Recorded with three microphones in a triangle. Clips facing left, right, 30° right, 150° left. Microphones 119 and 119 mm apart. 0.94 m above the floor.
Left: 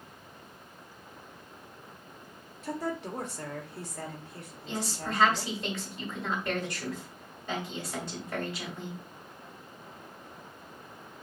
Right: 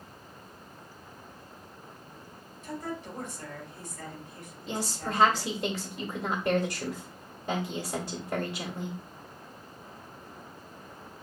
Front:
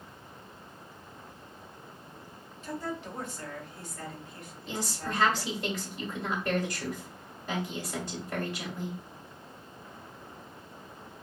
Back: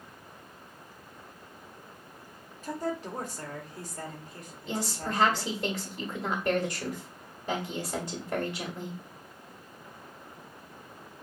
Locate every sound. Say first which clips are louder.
2.6 s a woman speaking: left 3 dB, back 3 dB; 100° left, 1.5 m
4.7 s a woman speaking: right 1 dB, back 2 dB; 140° right, 1.5 m